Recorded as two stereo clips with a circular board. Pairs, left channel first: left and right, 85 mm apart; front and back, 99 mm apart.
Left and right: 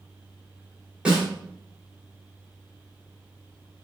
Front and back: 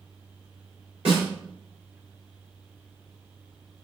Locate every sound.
1.1 s a snare drum: 170° right, 3.5 m